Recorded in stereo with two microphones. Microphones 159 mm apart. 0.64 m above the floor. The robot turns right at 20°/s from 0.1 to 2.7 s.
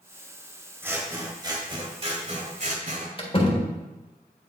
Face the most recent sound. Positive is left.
turn(degrees=35)  # may be behind; listen again after turning